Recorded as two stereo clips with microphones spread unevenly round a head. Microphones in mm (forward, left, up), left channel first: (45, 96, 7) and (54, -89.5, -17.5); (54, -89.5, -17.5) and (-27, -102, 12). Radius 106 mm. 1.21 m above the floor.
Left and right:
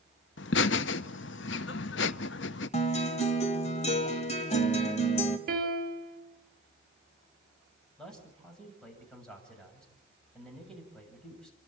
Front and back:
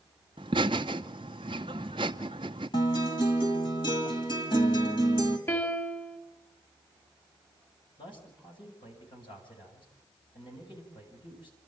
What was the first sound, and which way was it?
Laughter, 125° left.